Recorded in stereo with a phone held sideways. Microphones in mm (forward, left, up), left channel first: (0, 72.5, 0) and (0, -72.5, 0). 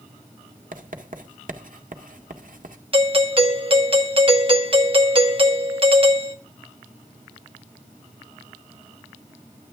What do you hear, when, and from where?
0.7 s writing: 70° right (ahead or behind), 1.7 m
2.9 s a doorbell: 40° right (ahead or behind), 1.9 m